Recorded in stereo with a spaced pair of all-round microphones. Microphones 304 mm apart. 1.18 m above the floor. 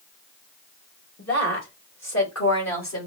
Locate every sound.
1.2 s a woman speaking: 55° left (ahead or behind), 2 m; by 3.1 s 60° left (ahead or behind), 3 m